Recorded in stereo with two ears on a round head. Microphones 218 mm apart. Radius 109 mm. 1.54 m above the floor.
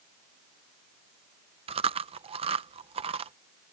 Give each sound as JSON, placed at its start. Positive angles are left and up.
{"t": 1.7, "sound": "chewing", "side_deg": -25}